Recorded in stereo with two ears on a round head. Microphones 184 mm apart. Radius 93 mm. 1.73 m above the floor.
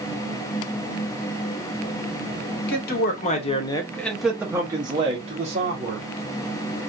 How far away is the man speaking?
About 0.9 m.